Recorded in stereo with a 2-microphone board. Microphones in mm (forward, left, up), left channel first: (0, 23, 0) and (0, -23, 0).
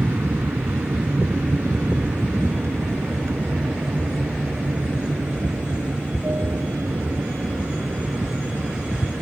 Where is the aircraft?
65° right (ahead or behind); by 9.2 s 80° right.